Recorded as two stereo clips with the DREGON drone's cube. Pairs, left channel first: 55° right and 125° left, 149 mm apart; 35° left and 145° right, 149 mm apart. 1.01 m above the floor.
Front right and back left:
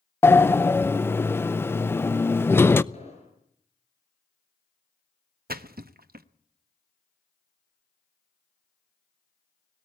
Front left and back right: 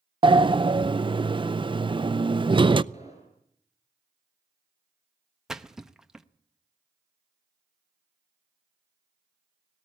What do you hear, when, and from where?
0.2 s a sliding door: 120° right, 0.5 m
2.9 s an explosion: 10° right, 7 m
5.5 s a splash: 125° left, 0.8 m